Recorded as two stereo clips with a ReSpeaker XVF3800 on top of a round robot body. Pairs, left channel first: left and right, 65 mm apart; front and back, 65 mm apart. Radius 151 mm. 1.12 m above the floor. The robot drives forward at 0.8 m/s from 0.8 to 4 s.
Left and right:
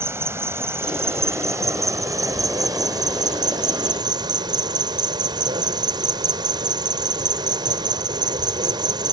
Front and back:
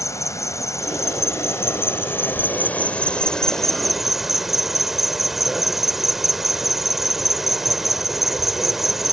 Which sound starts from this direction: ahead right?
An insect, at 0.0 s.